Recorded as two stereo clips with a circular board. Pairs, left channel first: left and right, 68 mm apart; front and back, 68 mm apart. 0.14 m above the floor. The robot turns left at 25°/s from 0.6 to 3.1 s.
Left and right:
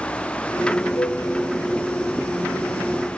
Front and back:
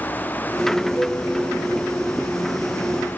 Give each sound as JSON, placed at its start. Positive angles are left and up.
{"t": 0.9, "sound": "a flute", "azimuth_deg": 45, "distance_m": 6.0}